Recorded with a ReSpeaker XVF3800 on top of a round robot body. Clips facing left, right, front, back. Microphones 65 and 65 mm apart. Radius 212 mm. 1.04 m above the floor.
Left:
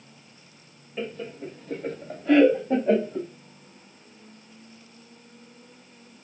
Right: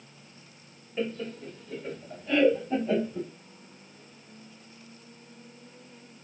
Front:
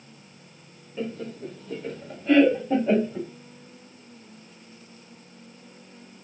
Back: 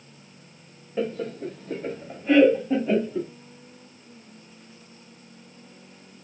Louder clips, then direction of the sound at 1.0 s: Right 1 dB, back 4 dB; straight behind.